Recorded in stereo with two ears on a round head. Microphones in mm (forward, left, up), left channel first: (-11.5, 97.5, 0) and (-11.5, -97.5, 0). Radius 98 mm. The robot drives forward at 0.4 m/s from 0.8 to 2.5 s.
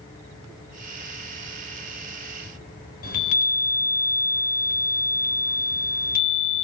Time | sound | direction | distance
3.0 | a chime | 45° left (ahead or behind) | 1.3 m